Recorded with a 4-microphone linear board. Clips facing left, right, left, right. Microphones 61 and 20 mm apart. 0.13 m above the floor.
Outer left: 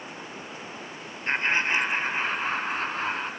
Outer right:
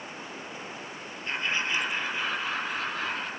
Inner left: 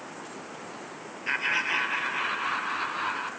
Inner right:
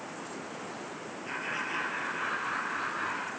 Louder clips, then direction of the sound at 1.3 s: Outer left 5 dB, inner left 8 dB; 40° left (ahead or behind).